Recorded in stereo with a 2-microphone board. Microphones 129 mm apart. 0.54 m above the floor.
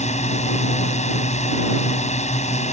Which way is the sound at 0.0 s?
65° left (ahead or behind).